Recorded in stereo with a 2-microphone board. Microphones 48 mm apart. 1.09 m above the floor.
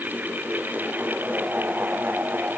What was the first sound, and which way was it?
Only background noise.